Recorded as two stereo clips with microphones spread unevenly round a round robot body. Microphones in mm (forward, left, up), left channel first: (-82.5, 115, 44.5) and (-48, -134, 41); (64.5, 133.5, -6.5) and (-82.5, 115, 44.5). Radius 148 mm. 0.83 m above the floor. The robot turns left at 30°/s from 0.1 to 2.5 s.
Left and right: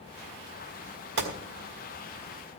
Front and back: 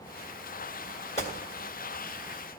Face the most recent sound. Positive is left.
turn(degrees=-95)